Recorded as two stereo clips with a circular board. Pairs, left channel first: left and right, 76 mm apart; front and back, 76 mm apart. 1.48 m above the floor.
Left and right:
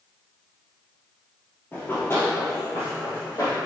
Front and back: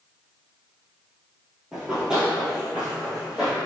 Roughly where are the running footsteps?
Left.